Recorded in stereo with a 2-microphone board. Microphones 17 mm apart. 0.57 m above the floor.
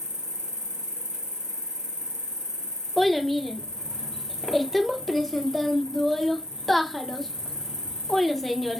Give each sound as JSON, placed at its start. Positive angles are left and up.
{"t": 0.0, "sound": "an insect", "side_deg": -50, "distance_m": 1.0}
{"t": 3.0, "sound": "a child speaking", "side_deg": 10, "distance_m": 0.5}